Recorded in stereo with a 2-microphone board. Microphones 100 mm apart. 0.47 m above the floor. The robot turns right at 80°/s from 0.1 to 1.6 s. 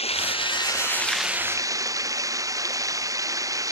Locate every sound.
0.0 s running water: 95° left; by 3.7 s 145° right